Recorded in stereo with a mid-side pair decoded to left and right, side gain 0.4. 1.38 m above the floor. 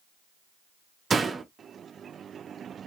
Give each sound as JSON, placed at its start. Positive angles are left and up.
{"t": 1.1, "sound": "a door slam", "azimuth_deg": -45, "distance_m": 1.4}